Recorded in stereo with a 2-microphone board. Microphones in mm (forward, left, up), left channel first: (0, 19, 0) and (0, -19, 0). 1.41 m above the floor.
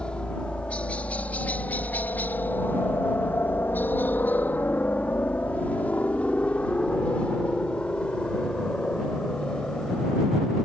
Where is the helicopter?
25° left (ahead or behind); by 10.7 s 20° left (ahead or behind).